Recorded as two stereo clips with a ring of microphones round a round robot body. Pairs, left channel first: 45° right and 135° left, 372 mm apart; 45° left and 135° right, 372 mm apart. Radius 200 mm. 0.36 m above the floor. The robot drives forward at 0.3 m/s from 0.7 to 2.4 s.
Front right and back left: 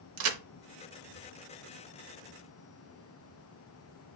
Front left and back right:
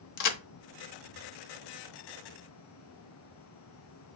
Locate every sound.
0.2 s a crack: 80° left, 0.7 m